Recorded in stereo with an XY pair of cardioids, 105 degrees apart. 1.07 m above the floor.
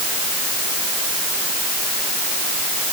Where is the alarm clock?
I don't hear an alarm clock.